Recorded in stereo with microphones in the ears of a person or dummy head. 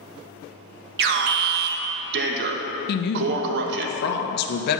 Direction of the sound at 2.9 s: 55° left (ahead or behind).